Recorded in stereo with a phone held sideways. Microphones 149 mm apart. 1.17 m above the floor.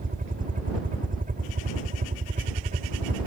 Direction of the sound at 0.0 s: 65° right (ahead or behind).